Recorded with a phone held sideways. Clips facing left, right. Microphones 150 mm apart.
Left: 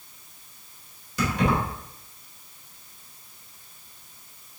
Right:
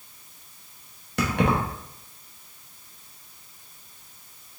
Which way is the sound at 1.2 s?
65° right (ahead or behind).